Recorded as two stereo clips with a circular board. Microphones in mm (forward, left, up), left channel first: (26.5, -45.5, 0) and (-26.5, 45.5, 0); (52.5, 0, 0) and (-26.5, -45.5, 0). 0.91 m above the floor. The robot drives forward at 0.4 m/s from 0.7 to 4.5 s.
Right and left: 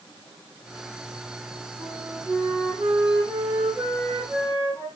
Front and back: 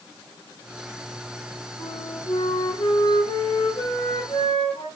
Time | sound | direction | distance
1.8 | a flute | 50° left | 6.5 m